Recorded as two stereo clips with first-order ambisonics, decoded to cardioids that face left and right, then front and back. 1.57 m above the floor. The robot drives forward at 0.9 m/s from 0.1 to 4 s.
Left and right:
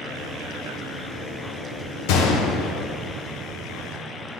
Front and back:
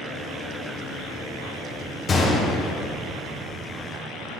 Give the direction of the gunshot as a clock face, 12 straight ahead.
10 o'clock.